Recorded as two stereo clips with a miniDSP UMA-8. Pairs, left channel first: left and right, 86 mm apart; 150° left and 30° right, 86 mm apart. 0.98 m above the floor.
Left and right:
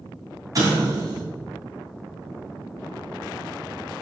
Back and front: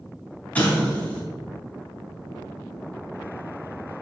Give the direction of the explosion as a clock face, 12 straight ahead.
5 o'clock.